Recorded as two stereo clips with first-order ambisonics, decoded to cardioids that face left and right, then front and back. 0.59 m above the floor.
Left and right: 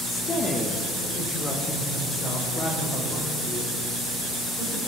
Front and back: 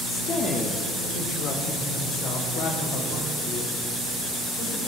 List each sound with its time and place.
0.1 s a woman speaking: 40° left, 1.3 m; by 4.9 s 25° left, 4.5 m